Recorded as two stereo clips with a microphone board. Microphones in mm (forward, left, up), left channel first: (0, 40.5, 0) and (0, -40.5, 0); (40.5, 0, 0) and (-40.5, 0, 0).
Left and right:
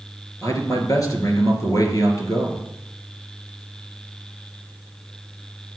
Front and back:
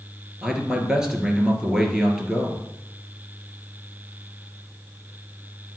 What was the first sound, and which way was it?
A man speaking, 100° left.